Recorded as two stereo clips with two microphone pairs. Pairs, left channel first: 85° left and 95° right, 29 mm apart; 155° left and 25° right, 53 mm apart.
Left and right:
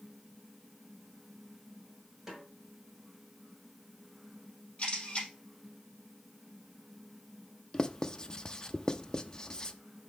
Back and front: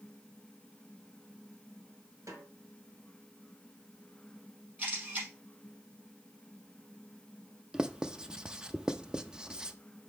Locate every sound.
2.3 s a snare drum: 20° right, 2 m
4.8 s a camera shutter: 30° left, 4.5 m
7.7 s writing: 35° left, 0.5 m